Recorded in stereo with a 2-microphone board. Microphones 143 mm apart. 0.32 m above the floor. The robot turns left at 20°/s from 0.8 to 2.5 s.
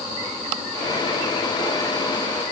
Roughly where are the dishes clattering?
No dishes clattering in this recording.